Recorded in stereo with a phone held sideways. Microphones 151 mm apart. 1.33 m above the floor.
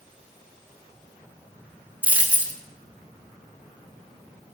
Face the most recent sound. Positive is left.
turn(degrees=-10)  # may be behind; listen again after turning